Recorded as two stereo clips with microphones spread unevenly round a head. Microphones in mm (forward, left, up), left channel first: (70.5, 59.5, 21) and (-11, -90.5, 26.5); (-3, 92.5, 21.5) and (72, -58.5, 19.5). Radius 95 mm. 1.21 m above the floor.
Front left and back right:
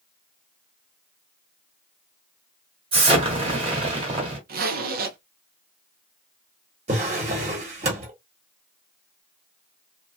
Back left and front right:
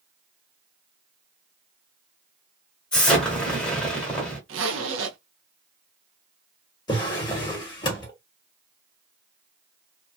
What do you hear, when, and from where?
2.9 s an explosion: 165° right, 1.2 m
4.5 s a zipper: 85° right, 0.8 m
6.9 s a drawer: 175° right, 1.0 m